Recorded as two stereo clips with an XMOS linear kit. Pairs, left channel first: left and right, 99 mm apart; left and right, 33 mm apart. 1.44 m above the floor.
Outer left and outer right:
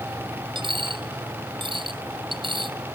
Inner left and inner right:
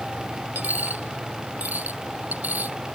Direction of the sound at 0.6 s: 55° right (ahead or behind).